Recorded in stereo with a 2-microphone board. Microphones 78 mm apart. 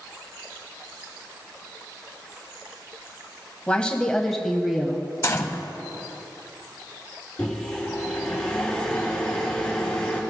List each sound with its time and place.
3.7 s a woman speaking: 15° left (ahead or behind), 1.1 m; by 5.1 s 10° right (ahead or behind), 1.2 m
5.2 s a gunshot: 40° left (ahead or behind), 0.7 m
7.4 s a microwave: 15° left (ahead or behind), 3 m